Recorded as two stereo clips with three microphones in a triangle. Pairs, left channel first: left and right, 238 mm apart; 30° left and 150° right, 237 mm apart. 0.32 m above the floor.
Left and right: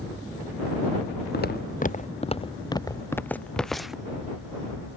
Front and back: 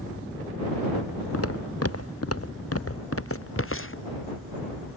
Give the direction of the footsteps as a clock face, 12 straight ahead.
10 o'clock.